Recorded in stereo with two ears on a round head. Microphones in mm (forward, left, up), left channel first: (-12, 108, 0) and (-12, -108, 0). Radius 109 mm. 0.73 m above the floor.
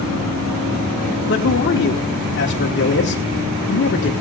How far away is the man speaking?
About 2.0 m.